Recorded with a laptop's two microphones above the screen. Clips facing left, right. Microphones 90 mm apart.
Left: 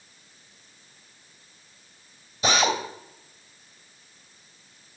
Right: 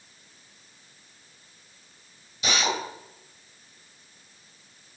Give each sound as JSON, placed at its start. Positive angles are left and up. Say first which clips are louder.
{"t": 2.4, "sound": "a drill", "louder": "left 4 dB", "side_deg": 35, "distance_m": 3.0}